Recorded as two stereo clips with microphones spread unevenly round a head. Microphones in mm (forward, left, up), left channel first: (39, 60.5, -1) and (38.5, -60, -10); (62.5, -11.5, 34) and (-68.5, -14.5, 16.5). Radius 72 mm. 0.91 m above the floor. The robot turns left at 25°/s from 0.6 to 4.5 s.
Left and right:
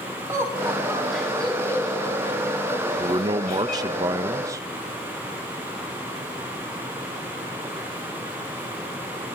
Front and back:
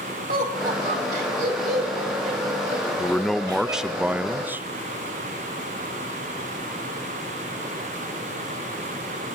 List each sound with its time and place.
0.3 s laughter: 165° right, 6 m; by 4.0 s 110° left, 6 m
3.0 s a man speaking: 90° right, 0.6 m; by 4.7 s 125° right, 0.6 m